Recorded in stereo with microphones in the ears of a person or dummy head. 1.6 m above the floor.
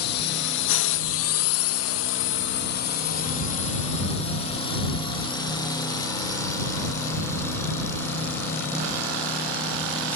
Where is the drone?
60° left (ahead or behind); by 10.2 s 10° left (ahead or behind).